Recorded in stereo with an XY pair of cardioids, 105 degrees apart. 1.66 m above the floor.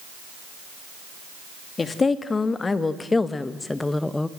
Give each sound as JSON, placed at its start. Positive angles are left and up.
{"t": 1.8, "sound": "a woman speaking", "azimuth_deg": 30, "distance_m": 2.5}